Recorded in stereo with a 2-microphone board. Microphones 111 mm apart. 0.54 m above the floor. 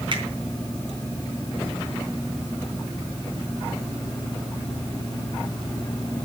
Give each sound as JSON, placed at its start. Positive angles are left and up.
{"t": 0.1, "sound": "a finger snap", "side_deg": -45, "distance_m": 4.0}